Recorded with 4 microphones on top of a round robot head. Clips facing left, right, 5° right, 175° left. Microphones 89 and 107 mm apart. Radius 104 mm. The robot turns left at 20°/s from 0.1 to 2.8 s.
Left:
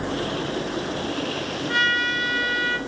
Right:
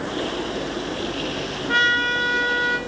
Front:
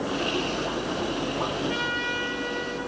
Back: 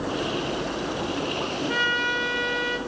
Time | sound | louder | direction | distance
1.7 | a trumpet | right 4 dB, back 3 dB | 140° right | 1.9 m